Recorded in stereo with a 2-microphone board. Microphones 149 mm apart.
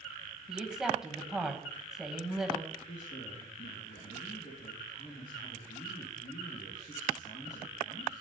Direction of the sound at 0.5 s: 5° right (ahead or behind).